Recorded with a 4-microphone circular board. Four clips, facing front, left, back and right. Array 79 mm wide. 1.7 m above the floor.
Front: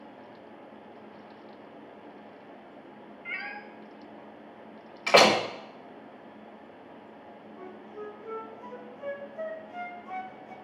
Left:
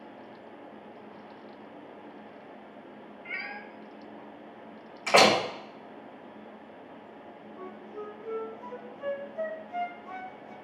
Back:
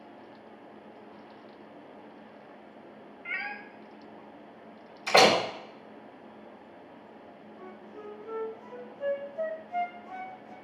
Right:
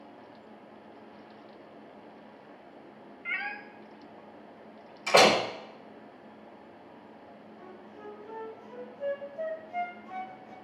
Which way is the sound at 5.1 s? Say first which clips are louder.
Even, front 1 dB; 25° left.